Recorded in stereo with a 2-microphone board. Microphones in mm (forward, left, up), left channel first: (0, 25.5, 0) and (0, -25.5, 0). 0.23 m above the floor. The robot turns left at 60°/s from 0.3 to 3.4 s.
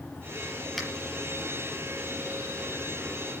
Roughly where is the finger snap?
Centre.